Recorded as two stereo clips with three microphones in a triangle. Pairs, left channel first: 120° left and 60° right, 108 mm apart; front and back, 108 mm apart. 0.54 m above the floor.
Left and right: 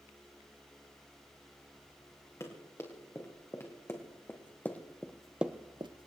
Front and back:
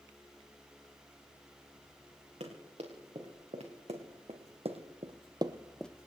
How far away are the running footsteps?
About 5 m.